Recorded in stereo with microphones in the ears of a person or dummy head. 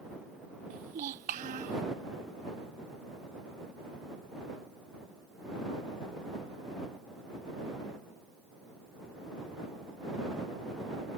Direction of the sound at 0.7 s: 40° right (ahead or behind).